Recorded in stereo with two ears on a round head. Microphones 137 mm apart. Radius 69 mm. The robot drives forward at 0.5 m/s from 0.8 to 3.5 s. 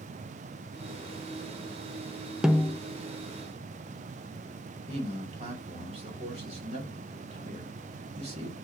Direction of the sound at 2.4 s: 5° right (ahead or behind).